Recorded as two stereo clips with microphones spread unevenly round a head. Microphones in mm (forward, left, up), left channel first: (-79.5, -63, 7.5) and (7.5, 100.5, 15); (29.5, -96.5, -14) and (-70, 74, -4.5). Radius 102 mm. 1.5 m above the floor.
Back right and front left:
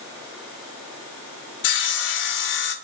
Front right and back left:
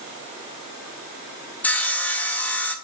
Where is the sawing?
140° right, 0.6 m.